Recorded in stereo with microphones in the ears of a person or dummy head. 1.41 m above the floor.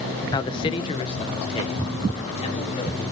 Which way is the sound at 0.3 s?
25° left (ahead or behind).